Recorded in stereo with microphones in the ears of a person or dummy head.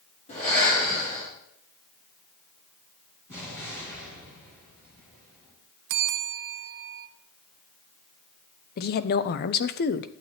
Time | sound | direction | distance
0.3 | breathing | 40° left (ahead or behind) | 4.5 m
3.3 | an explosion | 15° left (ahead or behind) | 4.5 m
5.9 | a bell | 60° right (ahead or behind) | 0.7 m
8.8 | a woman speaking | 50° left (ahead or behind) | 0.5 m